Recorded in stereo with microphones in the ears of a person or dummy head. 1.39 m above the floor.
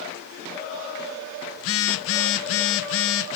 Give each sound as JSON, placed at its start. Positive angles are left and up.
{"t": 1.6, "sound": "a phone buzzing", "side_deg": 70, "distance_m": 0.6}